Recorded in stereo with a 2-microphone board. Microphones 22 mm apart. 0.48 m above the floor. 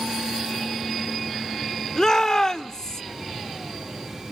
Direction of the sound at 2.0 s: 25° left (ahead or behind).